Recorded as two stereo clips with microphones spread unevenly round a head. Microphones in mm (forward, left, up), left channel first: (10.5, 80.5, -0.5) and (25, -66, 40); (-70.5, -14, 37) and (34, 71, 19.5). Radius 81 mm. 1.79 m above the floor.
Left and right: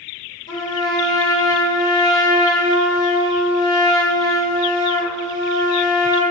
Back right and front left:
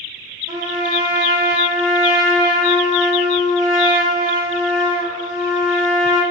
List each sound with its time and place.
0.5 s a trumpet: 30° left, 1.6 m